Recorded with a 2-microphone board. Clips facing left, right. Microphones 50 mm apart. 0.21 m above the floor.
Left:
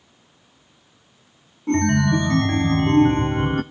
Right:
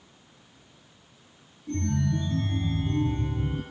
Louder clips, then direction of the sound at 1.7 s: Left 10 dB; 70° left (ahead or behind).